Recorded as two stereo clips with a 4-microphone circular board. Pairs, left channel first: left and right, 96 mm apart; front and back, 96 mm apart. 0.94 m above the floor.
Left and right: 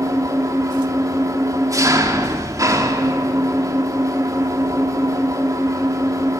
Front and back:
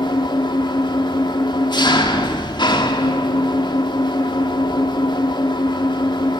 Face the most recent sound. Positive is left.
turn(degrees=-35)